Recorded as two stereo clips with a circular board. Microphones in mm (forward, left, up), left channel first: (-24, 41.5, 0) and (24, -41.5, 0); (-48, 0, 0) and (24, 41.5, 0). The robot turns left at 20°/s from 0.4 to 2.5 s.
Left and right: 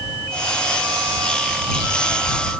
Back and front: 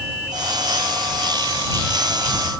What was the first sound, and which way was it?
Only background noise.